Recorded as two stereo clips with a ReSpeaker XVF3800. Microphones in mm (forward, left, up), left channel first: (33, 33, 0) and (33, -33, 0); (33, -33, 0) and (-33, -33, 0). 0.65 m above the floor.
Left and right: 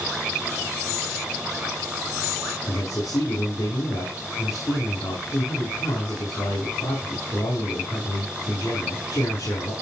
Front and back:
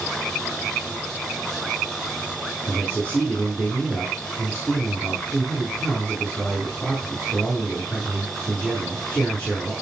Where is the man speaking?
70° left, 7 m.